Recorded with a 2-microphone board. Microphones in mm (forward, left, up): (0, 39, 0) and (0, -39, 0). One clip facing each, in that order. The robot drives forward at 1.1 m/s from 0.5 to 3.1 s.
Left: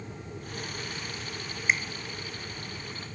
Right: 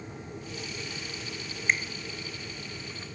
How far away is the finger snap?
About 1.2 m.